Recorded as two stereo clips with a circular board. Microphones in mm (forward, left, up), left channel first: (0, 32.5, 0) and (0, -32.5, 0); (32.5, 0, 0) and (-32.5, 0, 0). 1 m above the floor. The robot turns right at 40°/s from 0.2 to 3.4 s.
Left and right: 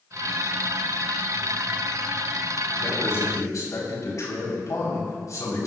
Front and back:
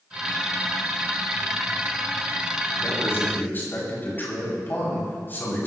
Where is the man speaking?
35° left, 6.5 m; by 5.7 s 55° left, 6.5 m.